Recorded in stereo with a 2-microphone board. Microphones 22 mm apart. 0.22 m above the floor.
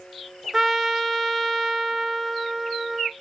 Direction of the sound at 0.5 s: 10° right (ahead or behind).